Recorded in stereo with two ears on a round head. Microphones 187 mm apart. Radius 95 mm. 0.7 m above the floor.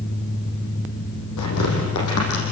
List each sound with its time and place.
1.4 s tearing paper: 90° left, 8.5 m